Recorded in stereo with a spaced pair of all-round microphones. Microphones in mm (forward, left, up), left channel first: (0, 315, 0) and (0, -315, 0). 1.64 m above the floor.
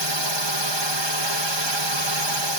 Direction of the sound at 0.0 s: 45° right (ahead or behind).